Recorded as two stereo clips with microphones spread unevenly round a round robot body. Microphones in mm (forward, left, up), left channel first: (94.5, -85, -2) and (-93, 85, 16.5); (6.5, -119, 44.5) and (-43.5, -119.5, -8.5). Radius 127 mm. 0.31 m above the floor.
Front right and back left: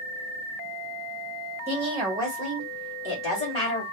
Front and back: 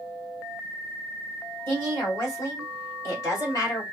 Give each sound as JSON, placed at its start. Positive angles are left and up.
{"t": 1.7, "sound": "a woman speaking", "azimuth_deg": 170, "distance_m": 1.5}